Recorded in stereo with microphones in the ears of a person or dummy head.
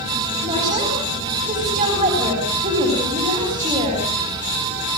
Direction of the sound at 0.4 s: 30° right (ahead or behind).